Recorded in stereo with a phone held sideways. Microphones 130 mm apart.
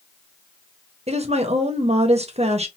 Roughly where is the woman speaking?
Right.